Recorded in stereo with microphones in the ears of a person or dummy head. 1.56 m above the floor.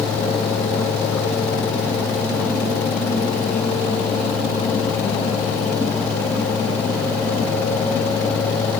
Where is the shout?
I don't hear a shout.